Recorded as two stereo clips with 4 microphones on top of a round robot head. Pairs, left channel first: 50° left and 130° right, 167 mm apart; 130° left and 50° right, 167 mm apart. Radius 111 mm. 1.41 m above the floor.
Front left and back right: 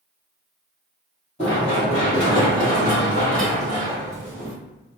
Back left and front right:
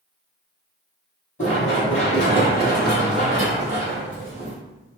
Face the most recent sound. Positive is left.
turn(degrees=-65)